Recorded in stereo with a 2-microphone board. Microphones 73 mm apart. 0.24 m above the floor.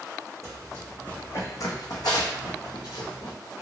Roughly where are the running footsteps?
Centre.